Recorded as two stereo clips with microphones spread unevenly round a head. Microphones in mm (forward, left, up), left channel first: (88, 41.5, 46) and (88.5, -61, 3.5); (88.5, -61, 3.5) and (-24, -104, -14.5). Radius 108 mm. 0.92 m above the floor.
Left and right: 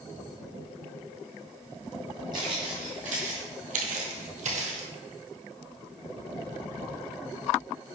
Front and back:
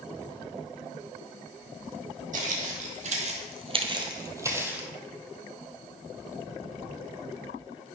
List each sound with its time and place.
2.3 s footsteps: 170° right, 2 m; by 4.9 s 80° right, 2 m